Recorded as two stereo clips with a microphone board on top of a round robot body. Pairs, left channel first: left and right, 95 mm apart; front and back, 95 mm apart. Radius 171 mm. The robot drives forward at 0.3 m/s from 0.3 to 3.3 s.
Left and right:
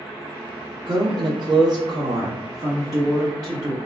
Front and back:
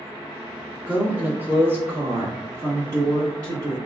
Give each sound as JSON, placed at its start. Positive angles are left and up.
{"t": 0.9, "sound": "a woman speaking", "azimuth_deg": -105, "distance_m": 1.2}